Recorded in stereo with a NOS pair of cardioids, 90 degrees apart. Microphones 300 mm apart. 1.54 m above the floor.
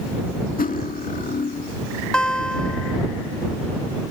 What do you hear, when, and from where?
0.6 s cutlery clinking: 30° left
2.1 s a guitar: 5° left